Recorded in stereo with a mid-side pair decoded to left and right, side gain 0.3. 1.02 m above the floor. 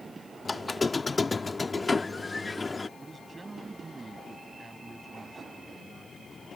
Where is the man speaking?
40° right.